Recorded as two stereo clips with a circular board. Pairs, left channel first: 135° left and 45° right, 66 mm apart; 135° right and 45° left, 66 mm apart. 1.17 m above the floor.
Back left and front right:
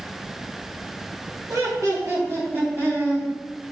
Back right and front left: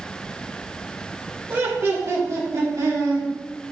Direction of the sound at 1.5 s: 15° right.